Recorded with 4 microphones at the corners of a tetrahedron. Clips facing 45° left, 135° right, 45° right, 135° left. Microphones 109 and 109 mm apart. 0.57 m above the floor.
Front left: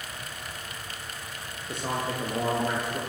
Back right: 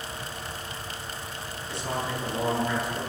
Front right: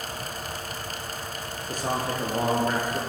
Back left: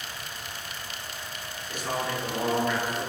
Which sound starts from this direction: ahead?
A man speaking, at 1.7 s.